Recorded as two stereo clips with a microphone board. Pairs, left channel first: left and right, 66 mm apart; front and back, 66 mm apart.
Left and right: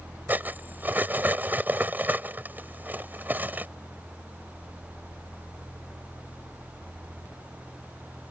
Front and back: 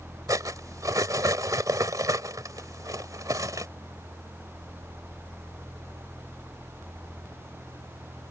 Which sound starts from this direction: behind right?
Cutlery clinking, at 0.3 s.